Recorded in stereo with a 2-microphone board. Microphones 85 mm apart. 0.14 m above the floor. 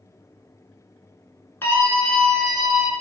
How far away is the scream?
About 1.5 m.